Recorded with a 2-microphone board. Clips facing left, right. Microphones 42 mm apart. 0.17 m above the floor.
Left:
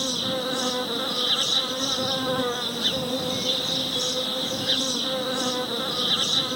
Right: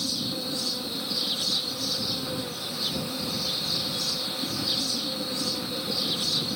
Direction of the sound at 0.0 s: 55° left (ahead or behind).